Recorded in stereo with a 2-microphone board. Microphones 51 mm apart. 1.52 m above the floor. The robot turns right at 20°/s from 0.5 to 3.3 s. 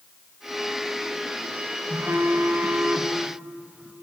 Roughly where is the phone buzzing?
Right.